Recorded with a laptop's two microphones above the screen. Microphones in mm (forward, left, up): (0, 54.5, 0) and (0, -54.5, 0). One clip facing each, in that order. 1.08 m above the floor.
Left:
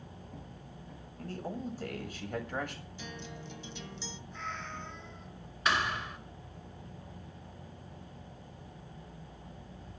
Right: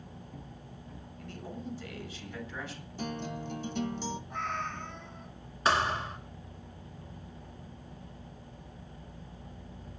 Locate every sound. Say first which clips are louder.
1.2 s a man speaking: left 4 dB; 40° left (ahead or behind), 7 m; by 2.8 s 55° left (ahead or behind), 7 m
3.0 s a guitar: right 10 dB; 50° right (ahead or behind), 1.0 m
4.3 s a cat meowing: right 2 dB; 55° right (ahead or behind), 6.5 m
5.7 s a thud: right 4 dB; 30° right (ahead or behind), 2.5 m